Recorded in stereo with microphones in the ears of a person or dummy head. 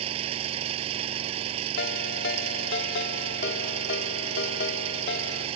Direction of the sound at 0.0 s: 35° right (ahead or behind).